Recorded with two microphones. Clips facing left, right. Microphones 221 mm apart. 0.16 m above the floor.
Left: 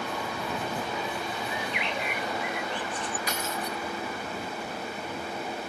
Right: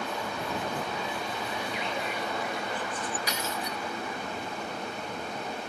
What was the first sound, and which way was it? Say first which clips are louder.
A bird: even; 75° left (ahead or behind).